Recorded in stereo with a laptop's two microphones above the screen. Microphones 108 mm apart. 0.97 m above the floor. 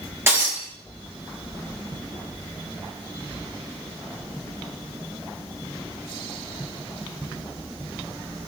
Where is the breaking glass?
20° right (ahead or behind), 4 m.